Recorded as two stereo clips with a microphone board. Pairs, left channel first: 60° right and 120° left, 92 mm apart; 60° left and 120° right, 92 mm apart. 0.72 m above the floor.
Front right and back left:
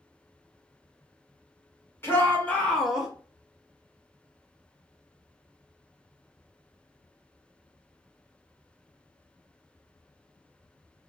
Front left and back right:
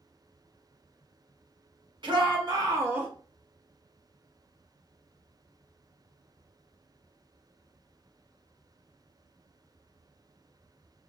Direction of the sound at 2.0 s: 120° right.